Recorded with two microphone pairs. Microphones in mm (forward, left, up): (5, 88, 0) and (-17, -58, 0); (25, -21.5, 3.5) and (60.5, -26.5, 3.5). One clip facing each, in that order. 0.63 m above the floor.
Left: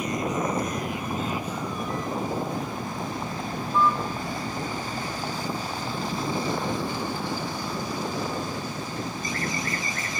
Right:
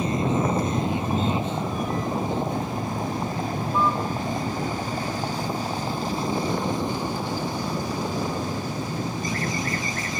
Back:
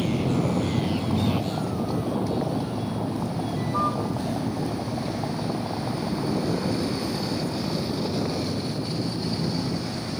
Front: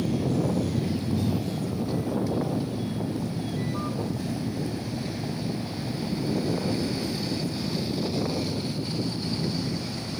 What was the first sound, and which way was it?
A vehicle, 160° right.